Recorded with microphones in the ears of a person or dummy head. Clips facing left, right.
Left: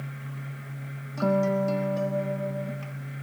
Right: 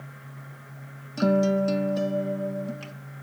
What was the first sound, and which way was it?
A guitar, 20° right (ahead or behind).